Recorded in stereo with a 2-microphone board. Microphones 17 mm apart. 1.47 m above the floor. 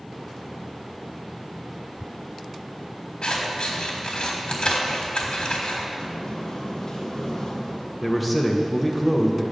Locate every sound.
3.2 s scissors: 60° left (ahead or behind), 1.4 m
6.0 s a sliding door: 35° left (ahead or behind), 1.2 m
8.0 s a man speaking: 5° right (ahead or behind), 0.9 m